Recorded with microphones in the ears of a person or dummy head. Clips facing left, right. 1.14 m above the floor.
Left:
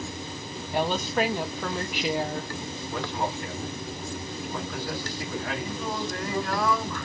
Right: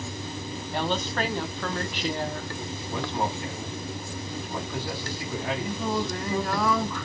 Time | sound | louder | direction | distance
0.7 | a woman speaking | left 3 dB | 10° left (ahead or behind) | 0.5 m
2.9 | a man speaking | right 1 dB | 15° right (ahead or behind) | 1.5 m
5.6 | singing | right 3 dB | 15° right (ahead or behind) | 1.6 m